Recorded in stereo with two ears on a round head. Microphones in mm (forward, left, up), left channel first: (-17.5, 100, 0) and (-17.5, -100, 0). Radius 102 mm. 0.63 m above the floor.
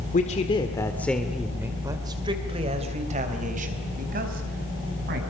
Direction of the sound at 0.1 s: 35° left (ahead or behind).